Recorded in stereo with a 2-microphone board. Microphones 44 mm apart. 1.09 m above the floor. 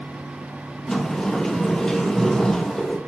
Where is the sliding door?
10° left (ahead or behind), 1.1 m.